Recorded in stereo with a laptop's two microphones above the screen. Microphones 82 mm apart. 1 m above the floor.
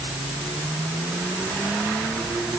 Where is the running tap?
I don't hear a running tap.